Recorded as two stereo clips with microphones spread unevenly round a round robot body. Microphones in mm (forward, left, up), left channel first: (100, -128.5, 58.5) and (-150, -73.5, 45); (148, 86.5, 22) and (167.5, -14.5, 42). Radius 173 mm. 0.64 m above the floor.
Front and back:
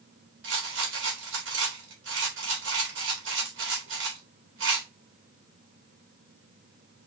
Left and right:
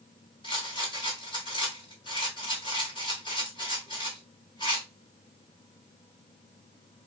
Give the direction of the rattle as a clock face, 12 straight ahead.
8 o'clock.